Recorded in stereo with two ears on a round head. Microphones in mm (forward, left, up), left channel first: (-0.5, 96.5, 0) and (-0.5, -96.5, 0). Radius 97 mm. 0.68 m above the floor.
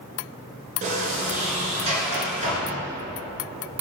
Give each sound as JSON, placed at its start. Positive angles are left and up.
{"t": 0.8, "sound": "a sliding door", "side_deg": -35, "distance_m": 2.0}